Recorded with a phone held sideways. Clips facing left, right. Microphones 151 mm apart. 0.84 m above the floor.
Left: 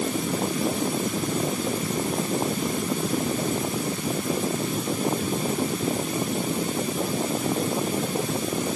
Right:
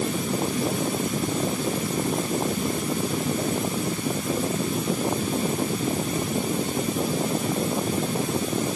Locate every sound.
Only background noise.